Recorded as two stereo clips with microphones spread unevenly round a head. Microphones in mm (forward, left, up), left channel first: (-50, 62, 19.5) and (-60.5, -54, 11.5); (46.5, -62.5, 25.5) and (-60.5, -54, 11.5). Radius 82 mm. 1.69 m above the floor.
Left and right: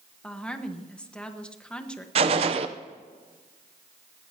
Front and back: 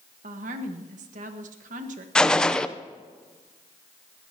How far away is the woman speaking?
About 1.4 m.